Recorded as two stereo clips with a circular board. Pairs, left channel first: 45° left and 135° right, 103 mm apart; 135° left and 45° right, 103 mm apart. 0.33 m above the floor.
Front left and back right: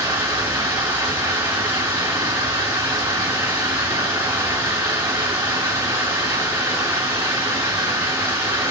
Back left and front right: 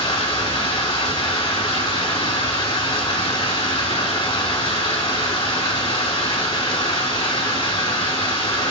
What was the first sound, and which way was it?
Running water, 165° left.